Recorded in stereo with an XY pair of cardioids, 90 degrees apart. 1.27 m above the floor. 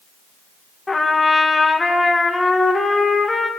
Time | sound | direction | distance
0.9 | a trumpet | 25° left | 1.6 m